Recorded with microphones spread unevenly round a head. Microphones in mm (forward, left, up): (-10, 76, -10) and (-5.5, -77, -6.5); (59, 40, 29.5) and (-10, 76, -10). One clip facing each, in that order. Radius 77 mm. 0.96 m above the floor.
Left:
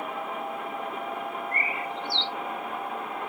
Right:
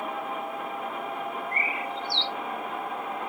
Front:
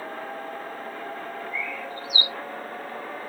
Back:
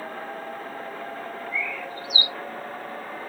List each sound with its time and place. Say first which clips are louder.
1.5 s a bird: even, back 1 dB; 65° right, 2 m